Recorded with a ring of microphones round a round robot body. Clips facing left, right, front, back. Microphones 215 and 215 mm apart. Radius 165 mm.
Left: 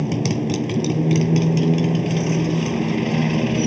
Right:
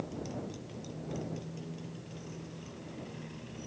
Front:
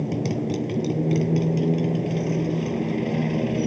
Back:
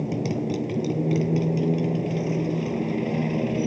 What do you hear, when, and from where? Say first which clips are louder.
0.0 s a motorcycle: left 17 dB, front 1 dB; 90° left